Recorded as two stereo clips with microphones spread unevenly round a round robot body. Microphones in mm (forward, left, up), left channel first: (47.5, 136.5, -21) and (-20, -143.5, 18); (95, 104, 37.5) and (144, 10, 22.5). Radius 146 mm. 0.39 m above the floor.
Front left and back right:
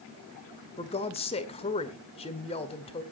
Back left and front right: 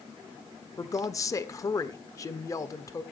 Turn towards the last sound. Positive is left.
turn(degrees=80)